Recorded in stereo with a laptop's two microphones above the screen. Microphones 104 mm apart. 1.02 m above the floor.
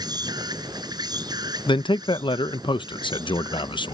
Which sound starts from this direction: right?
An insect, at 0.0 s.